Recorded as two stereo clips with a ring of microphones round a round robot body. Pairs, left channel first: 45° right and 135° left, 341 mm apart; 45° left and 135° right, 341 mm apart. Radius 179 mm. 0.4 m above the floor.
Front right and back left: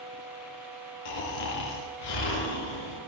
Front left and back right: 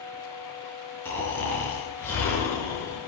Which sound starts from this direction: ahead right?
Snoring, at 1.1 s.